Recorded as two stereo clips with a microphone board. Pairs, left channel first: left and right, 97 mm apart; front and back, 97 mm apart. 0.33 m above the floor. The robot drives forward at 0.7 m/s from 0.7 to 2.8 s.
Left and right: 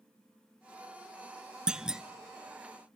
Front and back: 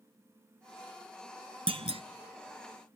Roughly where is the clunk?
Behind.